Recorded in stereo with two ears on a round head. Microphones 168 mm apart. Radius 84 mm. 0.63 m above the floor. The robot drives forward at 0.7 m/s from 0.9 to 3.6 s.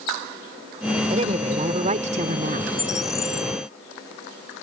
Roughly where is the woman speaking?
Right.